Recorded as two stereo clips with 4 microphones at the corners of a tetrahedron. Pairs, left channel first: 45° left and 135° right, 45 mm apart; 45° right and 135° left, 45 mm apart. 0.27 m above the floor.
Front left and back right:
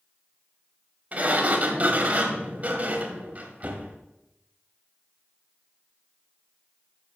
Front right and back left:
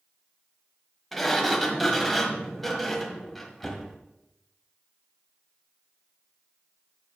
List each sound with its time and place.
1.1 s a sliding door: 130° right, 1.3 m